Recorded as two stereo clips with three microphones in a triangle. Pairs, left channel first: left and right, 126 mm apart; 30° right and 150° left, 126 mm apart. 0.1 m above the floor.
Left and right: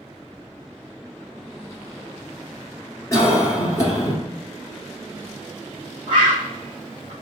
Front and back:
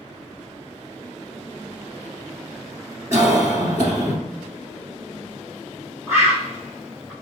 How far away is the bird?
About 2.0 m.